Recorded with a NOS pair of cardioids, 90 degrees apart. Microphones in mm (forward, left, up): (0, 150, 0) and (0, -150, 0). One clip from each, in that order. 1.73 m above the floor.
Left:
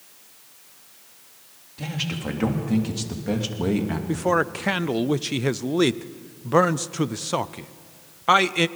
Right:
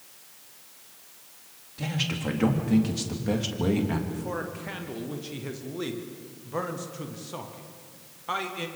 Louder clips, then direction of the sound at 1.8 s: Left 1 dB; straight ahead.